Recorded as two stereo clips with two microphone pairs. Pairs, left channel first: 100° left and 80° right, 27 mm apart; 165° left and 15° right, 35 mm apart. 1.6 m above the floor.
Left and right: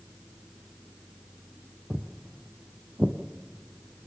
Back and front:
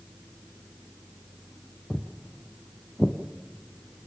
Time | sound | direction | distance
1.9 | footsteps | 115° right | 2 m